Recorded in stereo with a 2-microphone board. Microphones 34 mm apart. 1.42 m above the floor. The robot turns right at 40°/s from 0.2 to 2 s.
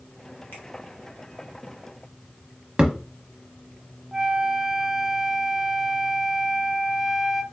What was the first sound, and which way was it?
A finger snap, 75° left (ahead or behind).